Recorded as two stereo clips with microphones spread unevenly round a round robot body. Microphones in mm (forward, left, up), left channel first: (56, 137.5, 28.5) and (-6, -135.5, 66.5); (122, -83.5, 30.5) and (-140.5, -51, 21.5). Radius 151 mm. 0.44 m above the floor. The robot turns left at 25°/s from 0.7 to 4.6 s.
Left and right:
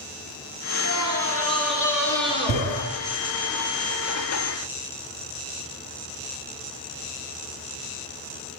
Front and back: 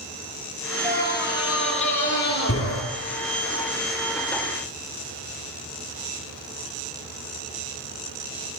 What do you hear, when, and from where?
0.8 s a scream: 105° left, 8.5 m; by 2.8 s 55° left, 8.5 m